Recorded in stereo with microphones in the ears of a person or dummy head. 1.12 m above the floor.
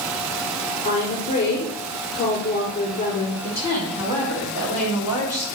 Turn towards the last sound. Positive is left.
turn(degrees=-20)  # may be behind; listen again after turning